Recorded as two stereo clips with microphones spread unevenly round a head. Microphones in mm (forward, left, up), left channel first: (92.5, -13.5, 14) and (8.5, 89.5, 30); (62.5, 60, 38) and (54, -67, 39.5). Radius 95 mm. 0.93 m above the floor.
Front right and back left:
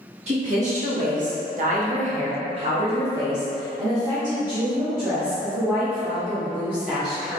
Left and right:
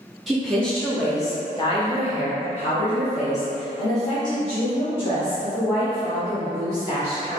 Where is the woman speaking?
175° left, 1.3 m; by 7.4 s 45° left, 3.5 m.